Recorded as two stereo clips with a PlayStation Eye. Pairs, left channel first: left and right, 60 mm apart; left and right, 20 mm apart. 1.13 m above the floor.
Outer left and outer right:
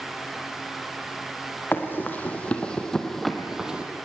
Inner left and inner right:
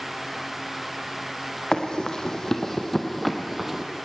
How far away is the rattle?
I don't hear a rattle.